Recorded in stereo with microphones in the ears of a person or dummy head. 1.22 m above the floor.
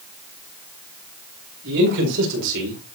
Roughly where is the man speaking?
Right.